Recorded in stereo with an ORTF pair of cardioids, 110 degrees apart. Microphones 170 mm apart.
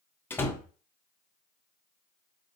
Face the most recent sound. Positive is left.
turn(degrees=15)